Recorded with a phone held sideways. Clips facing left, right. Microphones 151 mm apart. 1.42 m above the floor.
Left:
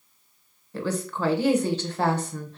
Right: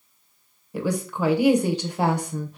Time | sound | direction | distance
0.7 | a woman speaking | 15° right (ahead or behind) | 0.8 m